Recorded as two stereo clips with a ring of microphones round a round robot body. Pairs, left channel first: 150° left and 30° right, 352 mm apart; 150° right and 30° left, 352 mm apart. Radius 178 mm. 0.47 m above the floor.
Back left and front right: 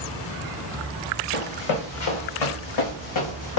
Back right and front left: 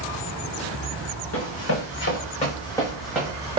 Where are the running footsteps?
165° left, 2 m; by 3.6 s 105° left, 1.7 m.